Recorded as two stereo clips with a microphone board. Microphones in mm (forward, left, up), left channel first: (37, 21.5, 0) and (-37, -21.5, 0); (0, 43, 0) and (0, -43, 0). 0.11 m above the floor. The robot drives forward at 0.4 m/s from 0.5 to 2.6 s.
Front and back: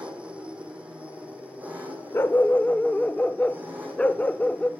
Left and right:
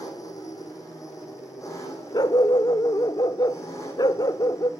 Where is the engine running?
135° left, 4 m; by 4.8 s 140° left, 4.5 m.